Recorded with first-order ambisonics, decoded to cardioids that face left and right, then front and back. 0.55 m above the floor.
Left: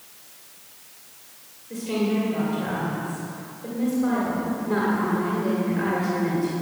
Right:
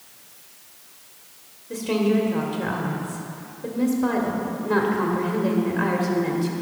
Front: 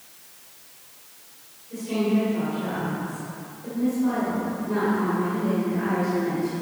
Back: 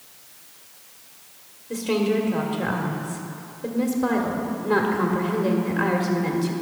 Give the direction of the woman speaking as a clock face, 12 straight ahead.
5 o'clock.